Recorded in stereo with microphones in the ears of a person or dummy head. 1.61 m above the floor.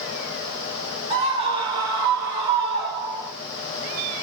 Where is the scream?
25° right (ahead or behind), 9.5 m; by 3.3 s 20° right (ahead or behind), 10.5 m.